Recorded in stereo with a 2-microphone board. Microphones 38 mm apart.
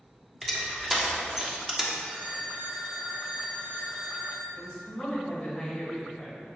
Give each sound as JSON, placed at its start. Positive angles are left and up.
{"t": 0.4, "sound": "crushing", "side_deg": -5, "distance_m": 1.3}
{"t": 2.0, "sound": "a phone ringing", "side_deg": -50, "distance_m": 2.5}
{"t": 4.5, "sound": "a woman speaking", "side_deg": 15, "distance_m": 2.5}